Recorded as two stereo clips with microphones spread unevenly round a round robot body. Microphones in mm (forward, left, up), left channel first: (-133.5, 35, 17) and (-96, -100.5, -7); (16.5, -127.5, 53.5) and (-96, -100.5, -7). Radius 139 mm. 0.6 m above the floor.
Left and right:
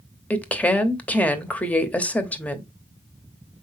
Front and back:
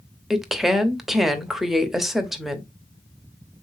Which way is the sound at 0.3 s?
165° right.